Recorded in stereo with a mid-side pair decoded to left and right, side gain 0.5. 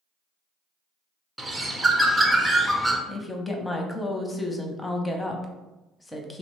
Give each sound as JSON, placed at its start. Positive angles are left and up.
{"t": 1.4, "sound": "a bird", "azimuth_deg": -15, "distance_m": 0.6}
{"t": 3.1, "sound": "a woman speaking", "azimuth_deg": 15, "distance_m": 0.7}